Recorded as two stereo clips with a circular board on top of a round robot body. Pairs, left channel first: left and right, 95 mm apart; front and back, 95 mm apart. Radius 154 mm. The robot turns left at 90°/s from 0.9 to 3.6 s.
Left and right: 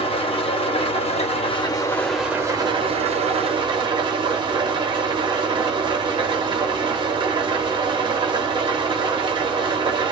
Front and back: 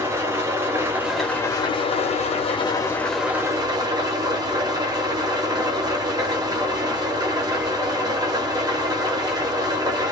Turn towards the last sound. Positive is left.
turn(degrees=-130)